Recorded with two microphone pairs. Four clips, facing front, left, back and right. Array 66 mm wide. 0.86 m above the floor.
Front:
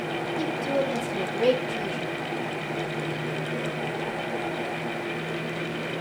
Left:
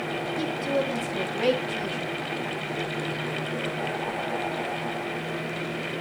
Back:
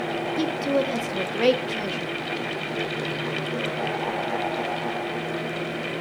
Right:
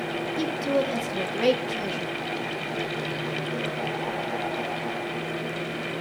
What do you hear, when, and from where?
0.4 s a woman speaking: 175° right, 1.8 m